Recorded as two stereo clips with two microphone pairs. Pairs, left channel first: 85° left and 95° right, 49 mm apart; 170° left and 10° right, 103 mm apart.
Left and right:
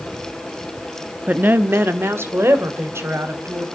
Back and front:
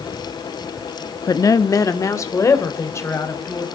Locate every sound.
1.3 s a woman speaking: 145° right, 0.8 m; by 3.6 s 130° right, 4 m